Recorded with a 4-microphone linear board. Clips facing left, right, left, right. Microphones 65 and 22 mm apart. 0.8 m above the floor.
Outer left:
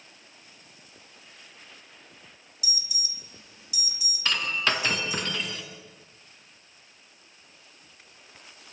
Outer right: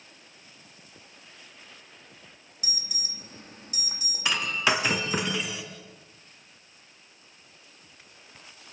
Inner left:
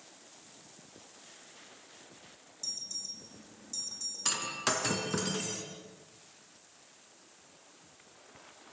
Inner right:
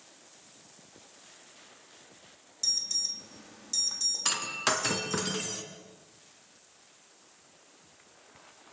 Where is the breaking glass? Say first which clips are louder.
Outer right 1 dB, inner left 2 dB; 10° right (ahead or behind), 2.5 m.